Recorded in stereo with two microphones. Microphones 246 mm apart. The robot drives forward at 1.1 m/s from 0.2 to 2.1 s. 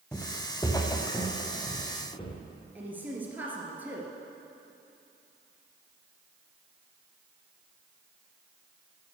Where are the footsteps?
10° left (ahead or behind), 1.3 m; by 2.4 s 25° left (ahead or behind), 3 m.